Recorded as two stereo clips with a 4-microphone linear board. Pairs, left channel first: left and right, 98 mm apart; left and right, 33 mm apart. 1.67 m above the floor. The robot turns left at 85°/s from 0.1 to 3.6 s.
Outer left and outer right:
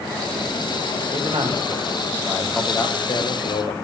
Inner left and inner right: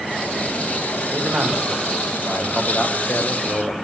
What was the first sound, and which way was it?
A man speaking, 70° right.